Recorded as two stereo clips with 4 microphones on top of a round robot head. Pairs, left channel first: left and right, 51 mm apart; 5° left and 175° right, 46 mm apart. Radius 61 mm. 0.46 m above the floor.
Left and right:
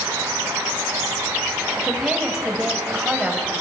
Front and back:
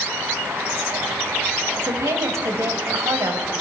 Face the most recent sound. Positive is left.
turn(degrees=-170)